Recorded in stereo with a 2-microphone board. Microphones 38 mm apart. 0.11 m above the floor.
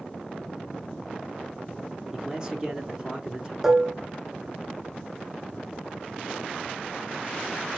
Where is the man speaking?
20° right (ahead or behind), 1.1 m.